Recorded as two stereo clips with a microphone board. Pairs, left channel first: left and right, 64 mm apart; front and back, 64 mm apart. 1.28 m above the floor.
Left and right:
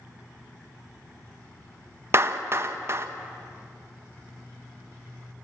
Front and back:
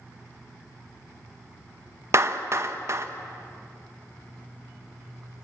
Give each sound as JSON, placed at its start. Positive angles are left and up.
{"t": 2.1, "sound": "a clap", "azimuth_deg": -135, "distance_m": 1.3}